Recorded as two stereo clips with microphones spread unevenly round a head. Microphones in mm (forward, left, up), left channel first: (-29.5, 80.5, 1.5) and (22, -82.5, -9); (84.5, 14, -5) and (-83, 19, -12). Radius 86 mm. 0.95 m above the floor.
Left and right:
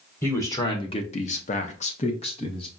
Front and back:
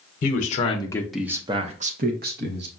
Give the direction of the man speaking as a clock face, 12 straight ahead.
11 o'clock.